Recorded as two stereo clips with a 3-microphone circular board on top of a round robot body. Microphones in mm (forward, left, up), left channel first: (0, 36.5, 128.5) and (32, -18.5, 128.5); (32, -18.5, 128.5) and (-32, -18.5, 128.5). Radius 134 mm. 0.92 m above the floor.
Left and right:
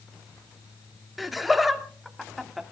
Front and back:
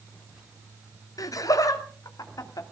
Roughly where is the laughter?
Ahead left.